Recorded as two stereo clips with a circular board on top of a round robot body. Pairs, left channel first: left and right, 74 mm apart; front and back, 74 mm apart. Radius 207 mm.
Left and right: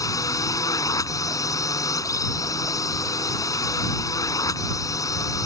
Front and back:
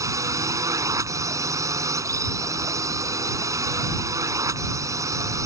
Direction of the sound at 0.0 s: 135° left.